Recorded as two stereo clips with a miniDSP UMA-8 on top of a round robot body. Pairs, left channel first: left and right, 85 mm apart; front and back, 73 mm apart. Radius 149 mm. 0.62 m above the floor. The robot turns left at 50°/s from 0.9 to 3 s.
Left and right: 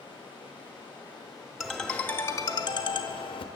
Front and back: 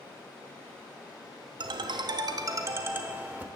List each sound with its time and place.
0.0 s running water: 65° left, 5.5 m; by 3.6 s 40° right, 5.5 m
1.6 s a ringtone: 175° right, 0.7 m; by 3.5 s 115° left, 0.7 m